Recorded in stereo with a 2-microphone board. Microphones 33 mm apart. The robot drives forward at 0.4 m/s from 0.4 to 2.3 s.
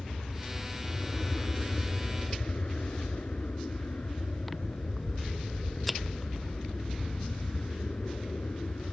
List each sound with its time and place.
0.0 s an aircraft: 55° left (ahead or behind); by 8.9 s 50° left (ahead or behind)
4.5 s scissors: centre (ahead or behind)